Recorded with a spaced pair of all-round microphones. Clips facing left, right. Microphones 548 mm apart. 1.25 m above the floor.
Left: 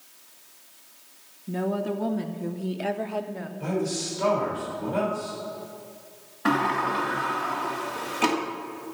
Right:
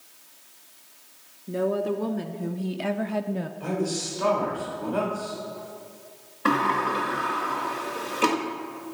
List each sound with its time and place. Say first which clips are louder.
1.5 s a woman speaking: right 2 dB; 15° left (ahead or behind), 1.4 m; by 3.5 s 55° right (ahead or behind), 0.7 m
3.6 s a man speaking: left 3 dB; 40° left (ahead or behind), 4.5 m
6.5 s a sliding door: even; 10° left (ahead or behind), 1.4 m